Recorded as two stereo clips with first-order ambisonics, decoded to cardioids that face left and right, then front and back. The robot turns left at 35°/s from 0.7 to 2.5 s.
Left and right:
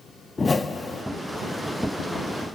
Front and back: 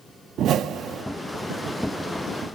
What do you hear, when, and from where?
0.4 s a whoosh: 160° left, 0.6 m; by 1.0 s 150° left, 0.6 m